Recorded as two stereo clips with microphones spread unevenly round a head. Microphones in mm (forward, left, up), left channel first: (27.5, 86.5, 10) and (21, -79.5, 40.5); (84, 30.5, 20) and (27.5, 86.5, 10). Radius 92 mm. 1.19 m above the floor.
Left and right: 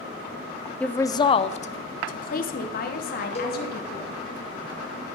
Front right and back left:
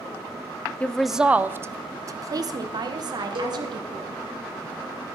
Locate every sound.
0.8 s a woman speaking: 25° left, 0.6 m; by 4.2 s 115° left, 2 m
3.4 s a cowbell: 140° left, 1.7 m